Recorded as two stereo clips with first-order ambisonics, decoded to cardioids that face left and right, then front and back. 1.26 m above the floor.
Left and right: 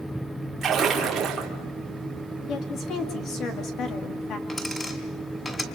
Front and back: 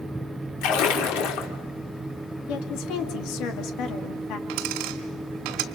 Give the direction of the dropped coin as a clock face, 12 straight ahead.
6 o'clock.